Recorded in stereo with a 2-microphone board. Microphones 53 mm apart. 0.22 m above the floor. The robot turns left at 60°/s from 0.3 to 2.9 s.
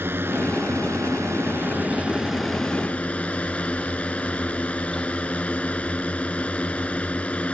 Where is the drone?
50° right; by 7.5 s 150° left.